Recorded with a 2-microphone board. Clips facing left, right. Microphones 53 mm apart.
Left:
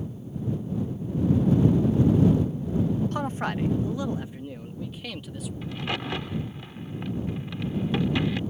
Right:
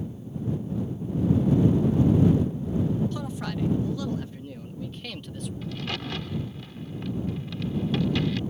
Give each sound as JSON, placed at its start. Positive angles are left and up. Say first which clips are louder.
{"t": 3.1, "sound": "a man speaking", "louder": "left 4 dB", "side_deg": 50}
{"t": 5.6, "sound": "a crack", "louder": "left 3 dB", "side_deg": 20}